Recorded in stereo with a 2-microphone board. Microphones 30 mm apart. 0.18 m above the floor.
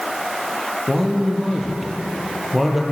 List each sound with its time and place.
0.9 s a man speaking: 5° right (ahead or behind), 5.5 m